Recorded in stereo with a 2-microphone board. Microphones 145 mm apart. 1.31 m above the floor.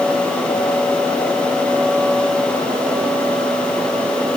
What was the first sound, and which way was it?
Only background noise.